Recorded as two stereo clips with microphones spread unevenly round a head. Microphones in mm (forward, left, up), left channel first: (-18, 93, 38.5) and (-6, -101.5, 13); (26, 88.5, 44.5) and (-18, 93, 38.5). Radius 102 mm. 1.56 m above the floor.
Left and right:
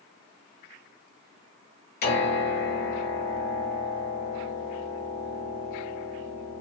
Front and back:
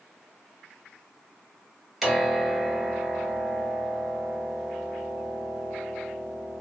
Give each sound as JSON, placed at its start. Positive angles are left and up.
{"t": 2.0, "sound": "a piano", "azimuth_deg": 85, "distance_m": 1.9}